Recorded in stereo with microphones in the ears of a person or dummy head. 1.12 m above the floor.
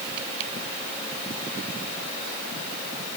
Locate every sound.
Only background noise.